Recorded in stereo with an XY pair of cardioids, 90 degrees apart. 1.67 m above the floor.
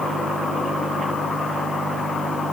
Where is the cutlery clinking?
I don't hear cutlery clinking.